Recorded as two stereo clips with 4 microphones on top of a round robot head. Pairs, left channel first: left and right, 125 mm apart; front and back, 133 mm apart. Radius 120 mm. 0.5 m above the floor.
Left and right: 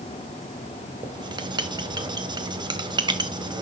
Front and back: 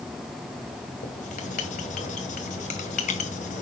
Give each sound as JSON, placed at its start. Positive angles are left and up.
{"t": 1.0, "sound": "writing", "azimuth_deg": -35, "distance_m": 1.6}